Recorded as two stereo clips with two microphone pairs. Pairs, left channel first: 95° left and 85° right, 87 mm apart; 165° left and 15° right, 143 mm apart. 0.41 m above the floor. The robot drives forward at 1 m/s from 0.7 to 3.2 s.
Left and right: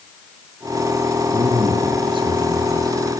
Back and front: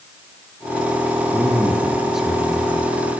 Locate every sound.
1.3 s a man speaking: 100° right, 8.5 m; by 3.0 s 110° right, 9 m